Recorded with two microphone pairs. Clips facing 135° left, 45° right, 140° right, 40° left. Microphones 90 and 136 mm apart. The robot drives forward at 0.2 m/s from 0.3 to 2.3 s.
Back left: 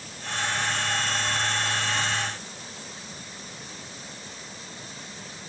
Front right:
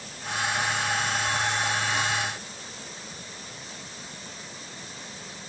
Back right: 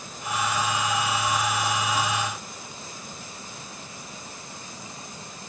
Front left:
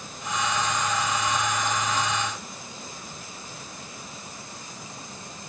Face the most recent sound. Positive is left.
No sound to turn to.